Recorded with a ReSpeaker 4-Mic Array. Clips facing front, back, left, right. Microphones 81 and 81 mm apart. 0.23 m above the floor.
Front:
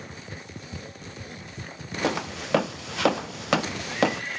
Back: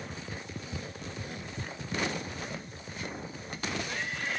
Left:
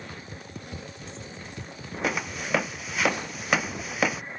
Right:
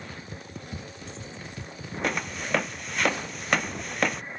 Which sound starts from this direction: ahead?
Footsteps, at 2.0 s.